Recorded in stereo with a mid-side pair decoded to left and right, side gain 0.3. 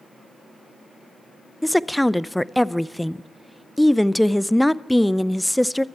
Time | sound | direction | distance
1.6 | a woman speaking | 5° left | 0.5 m